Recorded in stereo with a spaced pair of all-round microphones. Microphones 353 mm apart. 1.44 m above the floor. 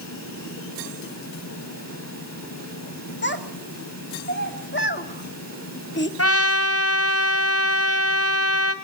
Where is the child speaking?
30° left (ahead or behind), 2 m.